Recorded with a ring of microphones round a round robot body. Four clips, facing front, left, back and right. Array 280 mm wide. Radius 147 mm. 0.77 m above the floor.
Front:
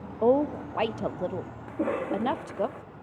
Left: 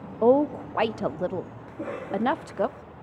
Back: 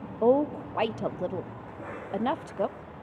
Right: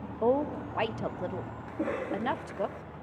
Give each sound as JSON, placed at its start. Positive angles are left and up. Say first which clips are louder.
{"t": 0.2, "sound": "a woman speaking", "louder": "left 7 dB, even", "azimuth_deg": 85, "distance_m": 0.8}
{"t": 1.7, "sound": "a cough", "louder": "even, front 10 dB", "azimuth_deg": -10, "distance_m": 2.0}